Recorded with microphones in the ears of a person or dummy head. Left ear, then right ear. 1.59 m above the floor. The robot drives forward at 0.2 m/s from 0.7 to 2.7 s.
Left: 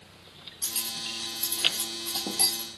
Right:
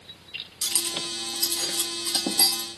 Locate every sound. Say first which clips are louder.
0.6 s cutlery clinking: right 5 dB; 35° right (ahead or behind), 0.7 m; by 2.7 s 30° right (ahead or behind), 0.9 m